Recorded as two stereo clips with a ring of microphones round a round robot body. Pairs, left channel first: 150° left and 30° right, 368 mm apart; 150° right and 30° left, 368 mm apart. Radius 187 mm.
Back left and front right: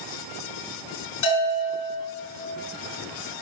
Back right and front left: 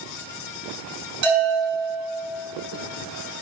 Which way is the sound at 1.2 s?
90° left.